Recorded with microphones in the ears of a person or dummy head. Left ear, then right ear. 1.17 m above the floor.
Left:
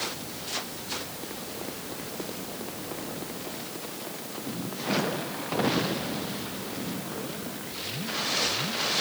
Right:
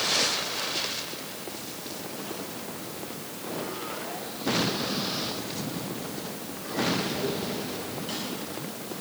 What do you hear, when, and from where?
Only background noise.